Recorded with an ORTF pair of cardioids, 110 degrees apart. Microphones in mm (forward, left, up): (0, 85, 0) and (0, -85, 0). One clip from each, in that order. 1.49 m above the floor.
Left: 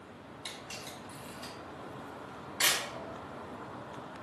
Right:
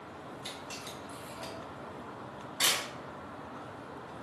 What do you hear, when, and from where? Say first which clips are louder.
0.5 s a camera shutter: left 1 dB; 5° left, 1.3 m